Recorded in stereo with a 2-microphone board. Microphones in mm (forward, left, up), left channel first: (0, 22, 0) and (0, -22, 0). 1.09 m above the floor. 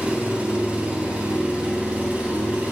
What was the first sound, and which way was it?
An engine running, 30° right (ahead or behind).